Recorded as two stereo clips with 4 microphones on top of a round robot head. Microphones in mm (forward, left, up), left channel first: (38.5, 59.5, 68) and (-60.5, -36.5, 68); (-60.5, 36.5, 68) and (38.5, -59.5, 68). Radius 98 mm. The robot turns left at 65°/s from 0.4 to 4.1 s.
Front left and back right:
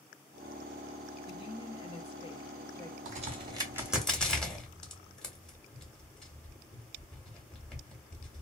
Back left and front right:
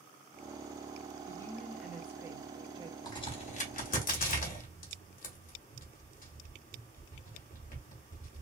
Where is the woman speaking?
85° left, 1.0 m; by 3.0 s 25° right, 1.0 m.